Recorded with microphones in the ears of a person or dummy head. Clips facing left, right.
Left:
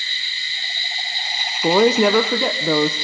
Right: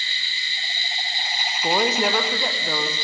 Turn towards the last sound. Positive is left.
turn(degrees=55)  # may be behind; listen again after turning